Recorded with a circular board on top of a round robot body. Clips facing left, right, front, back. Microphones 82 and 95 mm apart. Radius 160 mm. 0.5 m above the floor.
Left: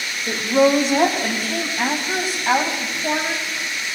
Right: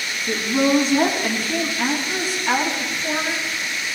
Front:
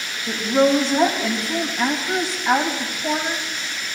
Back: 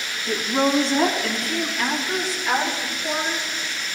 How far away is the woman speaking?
About 3.5 m.